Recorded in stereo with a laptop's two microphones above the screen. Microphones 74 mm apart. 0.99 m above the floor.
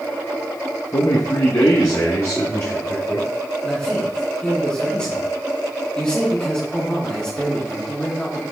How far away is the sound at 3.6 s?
About 2.5 m.